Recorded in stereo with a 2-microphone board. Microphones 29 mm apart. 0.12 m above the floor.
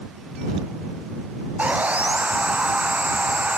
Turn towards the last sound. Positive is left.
turn(degrees=-50)  # may be behind; listen again after turning